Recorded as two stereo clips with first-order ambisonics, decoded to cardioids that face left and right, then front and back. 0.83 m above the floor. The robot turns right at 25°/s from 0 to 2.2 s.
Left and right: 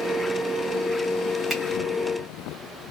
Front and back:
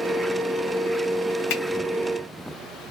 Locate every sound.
1.5 s a finger snap: 10° right, 1.5 m